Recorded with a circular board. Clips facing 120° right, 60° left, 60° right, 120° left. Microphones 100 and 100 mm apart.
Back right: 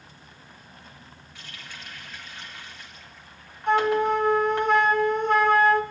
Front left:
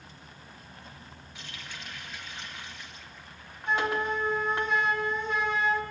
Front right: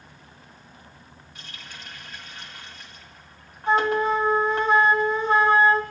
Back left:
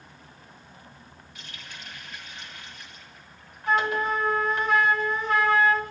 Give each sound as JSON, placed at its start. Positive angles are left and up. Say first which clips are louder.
{"t": 1.4, "sound": "a running tap", "louder": "even, front right 1 dB", "azimuth_deg": -10, "distance_m": 3.5}
{"t": 3.7, "sound": "a flute", "louder": "back right 7 dB, front right 4 dB", "azimuth_deg": -115, "distance_m": 1.7}